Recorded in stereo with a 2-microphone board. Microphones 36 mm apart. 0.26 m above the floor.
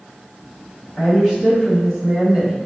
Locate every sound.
1.0 s a woman speaking: 10° left (ahead or behind), 1.6 m; by 2.6 s 20° right (ahead or behind), 1.2 m